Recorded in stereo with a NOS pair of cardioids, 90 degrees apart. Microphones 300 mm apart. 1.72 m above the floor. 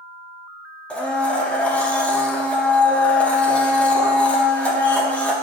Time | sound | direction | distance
0.9 | a blender | 5° left | 0.8 m